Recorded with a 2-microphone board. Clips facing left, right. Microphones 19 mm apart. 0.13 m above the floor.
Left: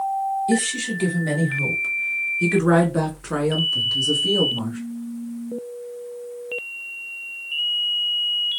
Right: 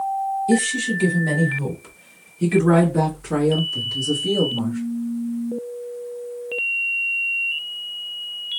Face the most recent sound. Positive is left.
turn(degrees=25)  # may be behind; listen again after turning